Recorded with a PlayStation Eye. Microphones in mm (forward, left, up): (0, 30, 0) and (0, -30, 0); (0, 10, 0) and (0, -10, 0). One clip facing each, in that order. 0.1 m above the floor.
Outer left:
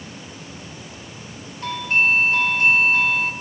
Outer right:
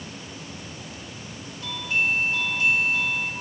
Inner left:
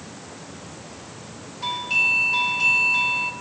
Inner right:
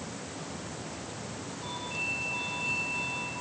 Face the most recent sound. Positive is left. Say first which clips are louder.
# outer left 6 dB, inner left 14 dB
turn(degrees=50)  # may be behind; listen again after turning